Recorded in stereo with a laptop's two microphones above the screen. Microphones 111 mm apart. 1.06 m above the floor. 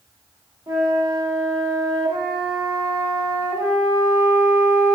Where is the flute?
40° right (ahead or behind), 0.9 m.